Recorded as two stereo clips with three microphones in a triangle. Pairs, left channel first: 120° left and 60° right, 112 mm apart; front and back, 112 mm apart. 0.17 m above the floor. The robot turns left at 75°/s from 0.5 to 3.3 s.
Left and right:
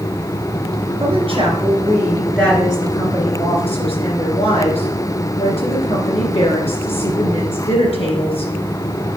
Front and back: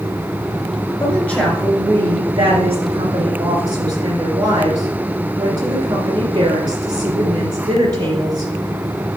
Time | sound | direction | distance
1.0 | a woman speaking | 55° right | 2.5 m